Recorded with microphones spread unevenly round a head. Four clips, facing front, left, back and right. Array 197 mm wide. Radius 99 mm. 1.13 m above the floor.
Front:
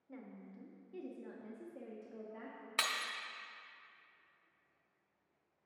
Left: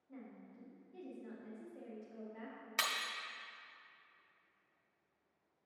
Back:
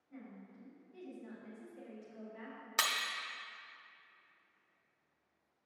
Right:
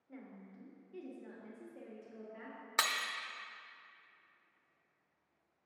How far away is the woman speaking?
About 1.7 m.